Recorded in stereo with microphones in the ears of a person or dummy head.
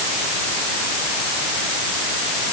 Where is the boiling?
I don't hear boiling.